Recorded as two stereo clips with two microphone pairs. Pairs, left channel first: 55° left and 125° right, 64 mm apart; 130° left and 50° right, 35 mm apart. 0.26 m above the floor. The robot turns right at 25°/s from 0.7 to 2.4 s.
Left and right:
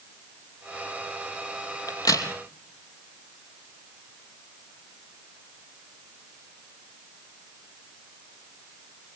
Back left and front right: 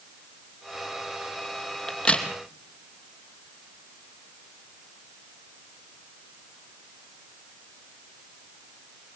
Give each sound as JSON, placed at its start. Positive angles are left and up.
{"t": 1.9, "sound": "a crack", "azimuth_deg": 65, "distance_m": 2.5}